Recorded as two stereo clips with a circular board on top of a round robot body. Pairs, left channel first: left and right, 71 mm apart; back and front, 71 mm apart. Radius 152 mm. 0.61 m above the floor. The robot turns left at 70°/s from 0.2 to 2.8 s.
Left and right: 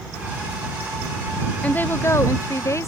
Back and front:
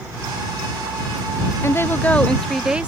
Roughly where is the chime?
I don't hear a chime.